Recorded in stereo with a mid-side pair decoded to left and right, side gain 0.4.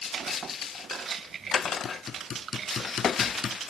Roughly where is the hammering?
Ahead left.